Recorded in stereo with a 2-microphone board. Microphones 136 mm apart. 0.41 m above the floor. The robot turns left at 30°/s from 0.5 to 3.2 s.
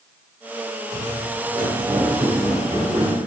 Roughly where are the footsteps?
Right.